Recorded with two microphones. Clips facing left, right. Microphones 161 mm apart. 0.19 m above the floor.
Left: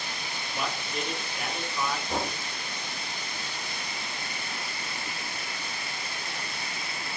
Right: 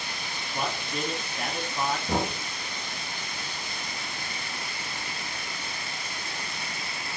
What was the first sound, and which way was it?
A man speaking, 45° right (ahead or behind).